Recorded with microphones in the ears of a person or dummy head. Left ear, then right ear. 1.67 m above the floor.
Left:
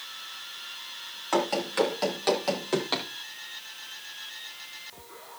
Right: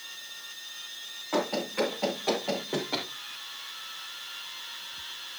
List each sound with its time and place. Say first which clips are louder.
1.3 s running footsteps: left 3 dB; 55° left (ahead or behind), 4.5 m